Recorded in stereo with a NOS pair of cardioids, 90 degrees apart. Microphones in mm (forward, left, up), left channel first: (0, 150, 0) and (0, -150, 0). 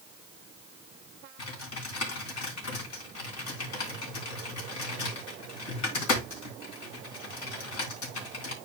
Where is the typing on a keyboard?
65° left, 3.5 m.